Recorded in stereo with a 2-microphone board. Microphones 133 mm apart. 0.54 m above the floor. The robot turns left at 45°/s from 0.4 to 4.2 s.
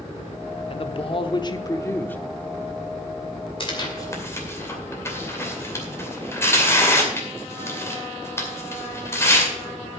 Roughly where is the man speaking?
Left.